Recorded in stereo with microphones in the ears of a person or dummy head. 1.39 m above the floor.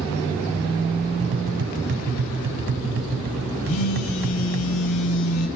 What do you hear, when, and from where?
1.2 s tapping: 45° right (ahead or behind), 1.1 m
3.6 s a phone buzzing: 85° left, 6.5 m